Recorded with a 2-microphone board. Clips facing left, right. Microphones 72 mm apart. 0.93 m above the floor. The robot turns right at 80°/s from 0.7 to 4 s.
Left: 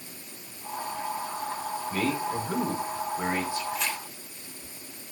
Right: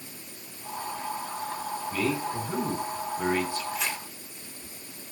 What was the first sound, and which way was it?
A man speaking, 35° left.